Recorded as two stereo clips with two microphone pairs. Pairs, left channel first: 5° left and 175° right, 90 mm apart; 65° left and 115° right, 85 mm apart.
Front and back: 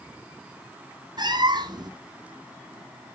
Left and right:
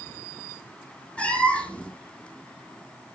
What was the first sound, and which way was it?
A cat meowing, 140° left.